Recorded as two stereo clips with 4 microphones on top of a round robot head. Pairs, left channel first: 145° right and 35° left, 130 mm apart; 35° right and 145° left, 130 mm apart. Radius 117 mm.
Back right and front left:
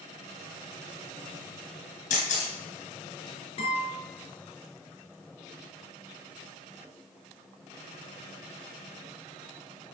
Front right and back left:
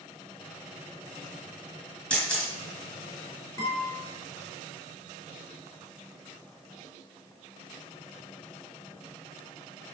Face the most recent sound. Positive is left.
turn(degrees=-100)